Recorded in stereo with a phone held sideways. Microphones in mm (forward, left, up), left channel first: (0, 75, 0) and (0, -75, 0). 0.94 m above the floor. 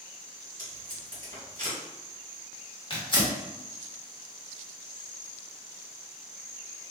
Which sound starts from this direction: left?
Tearing paper, at 2.9 s.